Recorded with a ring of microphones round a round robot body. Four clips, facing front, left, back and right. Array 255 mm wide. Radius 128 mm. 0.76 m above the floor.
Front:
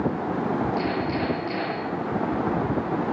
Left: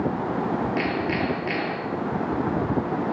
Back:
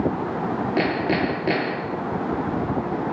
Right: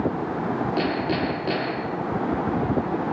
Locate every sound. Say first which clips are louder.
0.8 s hammering: right 1 dB, back 4 dB; 165° right, 7.5 m